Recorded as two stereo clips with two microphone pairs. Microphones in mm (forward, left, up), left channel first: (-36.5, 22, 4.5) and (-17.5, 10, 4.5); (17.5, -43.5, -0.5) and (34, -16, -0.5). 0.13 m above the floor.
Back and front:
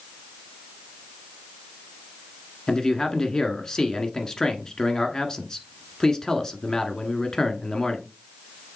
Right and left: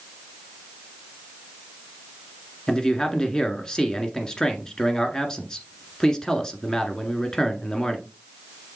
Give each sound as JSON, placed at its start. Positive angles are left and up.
{"t": 2.7, "sound": "a man speaking", "azimuth_deg": -170, "distance_m": 1.4}